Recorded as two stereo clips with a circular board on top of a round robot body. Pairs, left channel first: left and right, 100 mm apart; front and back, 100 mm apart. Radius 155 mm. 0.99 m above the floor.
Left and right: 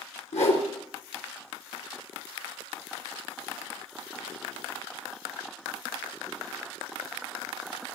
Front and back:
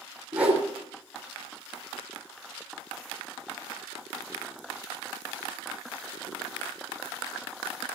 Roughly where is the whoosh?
Left.